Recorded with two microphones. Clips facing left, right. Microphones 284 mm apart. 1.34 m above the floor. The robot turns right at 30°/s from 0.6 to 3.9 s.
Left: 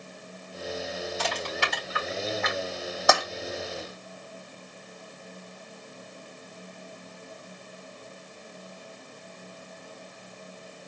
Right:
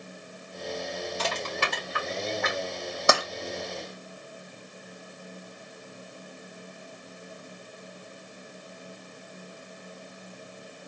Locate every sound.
1.2 s crushing: 45° right (ahead or behind), 3.5 m; by 2.6 s 85° right, 3.5 m
3.1 s tapping: 30° right (ahead or behind), 1.5 m; by 3.2 s 35° right (ahead or behind), 1.5 m